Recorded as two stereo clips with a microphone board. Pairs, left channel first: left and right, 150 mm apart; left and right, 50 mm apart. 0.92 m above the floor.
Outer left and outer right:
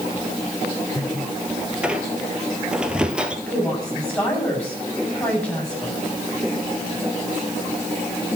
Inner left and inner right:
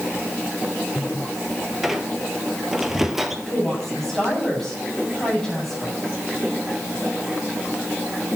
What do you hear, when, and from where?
1.8 s a squeak: 5° right (ahead or behind), 1.4 m
3.5 s a woman speaking: 10° left (ahead or behind), 7.5 m